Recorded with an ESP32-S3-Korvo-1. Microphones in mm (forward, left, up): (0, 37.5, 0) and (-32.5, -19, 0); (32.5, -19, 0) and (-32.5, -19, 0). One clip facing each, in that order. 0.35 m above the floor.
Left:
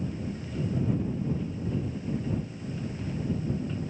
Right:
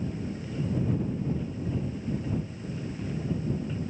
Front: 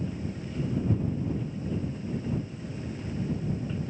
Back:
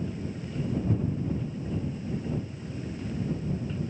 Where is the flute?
No flute in this recording.